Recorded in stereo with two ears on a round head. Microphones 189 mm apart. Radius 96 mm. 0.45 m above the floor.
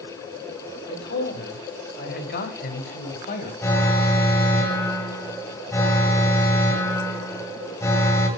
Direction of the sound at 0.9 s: 50° left (ahead or behind).